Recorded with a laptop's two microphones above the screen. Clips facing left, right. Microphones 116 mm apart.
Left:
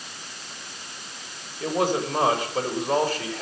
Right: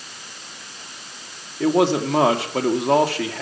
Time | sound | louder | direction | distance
1.6 | a man speaking | right 6 dB | 70° right (ahead or behind) | 1.4 m